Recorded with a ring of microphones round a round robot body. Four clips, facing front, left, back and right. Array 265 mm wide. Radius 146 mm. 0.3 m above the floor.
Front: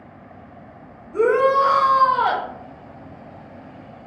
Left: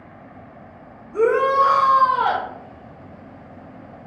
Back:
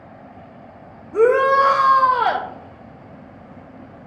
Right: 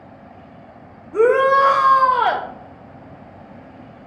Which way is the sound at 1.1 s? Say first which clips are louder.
Right 3 dB, back 2 dB; 130° right.